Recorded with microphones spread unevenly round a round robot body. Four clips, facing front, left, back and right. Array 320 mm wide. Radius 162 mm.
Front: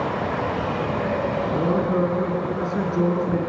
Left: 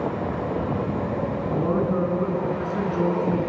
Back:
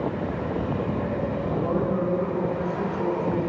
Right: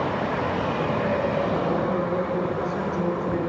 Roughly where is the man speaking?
Ahead.